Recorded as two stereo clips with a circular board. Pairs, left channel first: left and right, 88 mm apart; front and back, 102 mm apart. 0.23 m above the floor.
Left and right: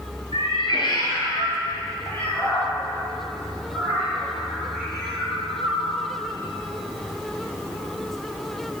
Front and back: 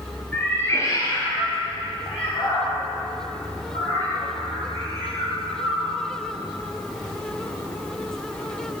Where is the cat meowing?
80° left, 1.0 m; by 6.0 s 5° right, 4 m.